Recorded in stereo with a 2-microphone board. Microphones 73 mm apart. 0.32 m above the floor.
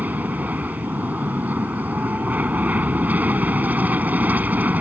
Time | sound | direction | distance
0.0 | an aircraft | 25° right (ahead or behind) | ?